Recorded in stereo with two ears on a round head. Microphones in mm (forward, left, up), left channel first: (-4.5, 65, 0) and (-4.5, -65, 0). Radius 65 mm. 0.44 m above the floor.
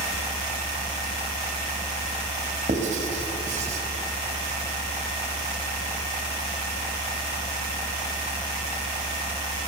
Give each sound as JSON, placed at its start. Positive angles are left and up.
{"t": 2.7, "sound": "writing", "side_deg": -50, "distance_m": 3.5}